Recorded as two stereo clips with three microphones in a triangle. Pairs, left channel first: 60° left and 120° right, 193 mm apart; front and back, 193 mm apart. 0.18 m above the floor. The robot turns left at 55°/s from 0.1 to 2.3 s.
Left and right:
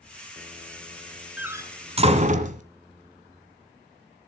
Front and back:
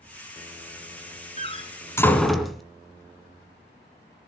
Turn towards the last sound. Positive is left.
turn(degrees=-90)